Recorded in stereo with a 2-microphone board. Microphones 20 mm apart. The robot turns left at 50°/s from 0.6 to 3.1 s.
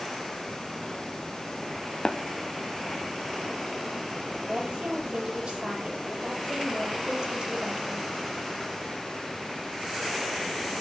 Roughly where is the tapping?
Left.